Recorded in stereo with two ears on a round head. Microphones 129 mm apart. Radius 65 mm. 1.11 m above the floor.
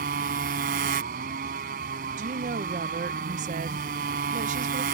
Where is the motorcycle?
70° right (ahead or behind).